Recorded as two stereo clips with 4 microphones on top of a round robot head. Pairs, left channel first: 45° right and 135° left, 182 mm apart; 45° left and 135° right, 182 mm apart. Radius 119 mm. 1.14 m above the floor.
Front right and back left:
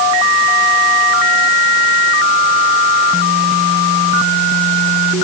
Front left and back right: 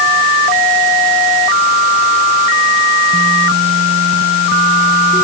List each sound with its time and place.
Only background noise.